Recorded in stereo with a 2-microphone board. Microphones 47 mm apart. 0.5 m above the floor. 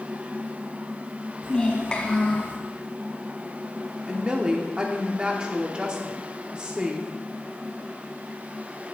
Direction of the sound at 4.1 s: 20° right (ahead or behind).